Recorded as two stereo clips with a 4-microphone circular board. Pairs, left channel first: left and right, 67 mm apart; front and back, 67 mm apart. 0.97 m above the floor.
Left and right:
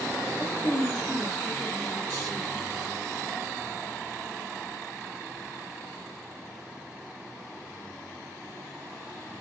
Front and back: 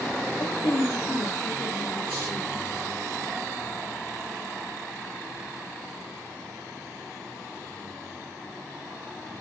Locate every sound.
0.4 s a woman speaking: 40° left, 1.0 m